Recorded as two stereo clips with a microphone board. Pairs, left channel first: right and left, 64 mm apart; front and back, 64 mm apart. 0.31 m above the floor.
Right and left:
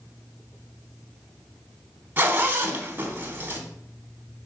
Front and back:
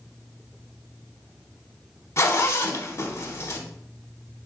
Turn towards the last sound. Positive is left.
turn(degrees=35)